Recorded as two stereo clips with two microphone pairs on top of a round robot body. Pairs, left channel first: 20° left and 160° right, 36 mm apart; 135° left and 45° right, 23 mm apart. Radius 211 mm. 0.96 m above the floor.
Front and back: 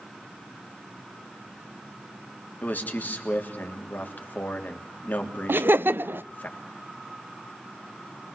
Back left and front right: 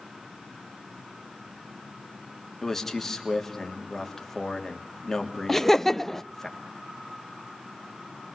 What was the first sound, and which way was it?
A man speaking, 60° left.